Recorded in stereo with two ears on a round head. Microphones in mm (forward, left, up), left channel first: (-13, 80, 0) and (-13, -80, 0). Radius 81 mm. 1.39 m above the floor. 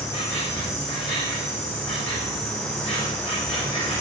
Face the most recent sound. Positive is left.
turn(degrees=35)  # may be behind; listen again after turning